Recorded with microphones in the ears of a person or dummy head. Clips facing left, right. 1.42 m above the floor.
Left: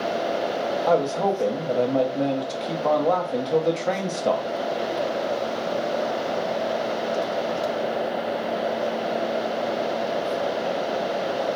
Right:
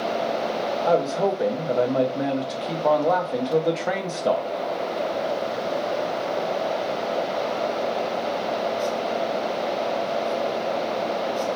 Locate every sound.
0.8 s a man speaking: centre (ahead or behind), 0.7 m